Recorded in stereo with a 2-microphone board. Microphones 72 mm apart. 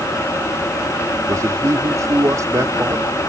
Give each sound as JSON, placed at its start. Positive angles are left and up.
{"t": 1.3, "sound": "a man speaking", "side_deg": -50}